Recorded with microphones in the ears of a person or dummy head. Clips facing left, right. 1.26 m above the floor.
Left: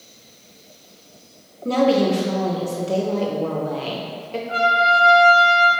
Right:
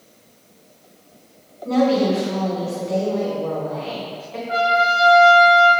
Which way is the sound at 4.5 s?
55° right (ahead or behind).